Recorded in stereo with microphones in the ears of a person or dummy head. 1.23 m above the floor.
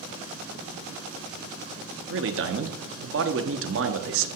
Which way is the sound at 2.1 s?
60° right (ahead or behind).